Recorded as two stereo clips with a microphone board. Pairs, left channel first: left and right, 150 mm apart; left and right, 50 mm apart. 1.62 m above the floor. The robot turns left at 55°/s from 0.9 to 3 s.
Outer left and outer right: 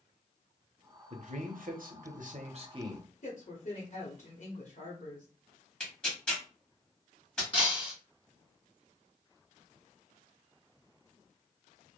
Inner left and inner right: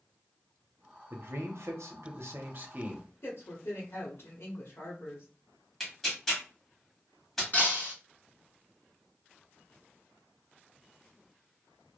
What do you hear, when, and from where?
1.1 s a man speaking: 50° right, 0.7 m; by 3.1 s 155° right, 0.7 m
3.2 s a woman speaking: 65° left (ahead or behind), 1.0 m
5.8 s tearing paper: 5° left (ahead or behind), 1.2 m
7.5 s breaking glass: 40° left (ahead or behind), 1.8 m